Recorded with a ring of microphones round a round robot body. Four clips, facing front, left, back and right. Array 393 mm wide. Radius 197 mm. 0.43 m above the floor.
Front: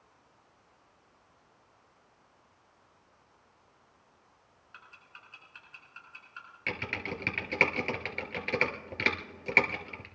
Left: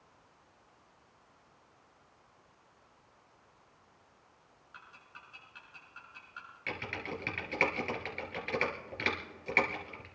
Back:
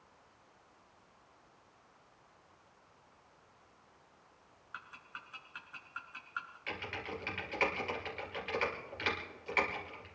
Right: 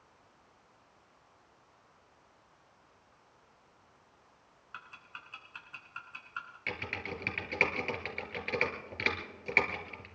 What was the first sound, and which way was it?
Ticking, 110° right.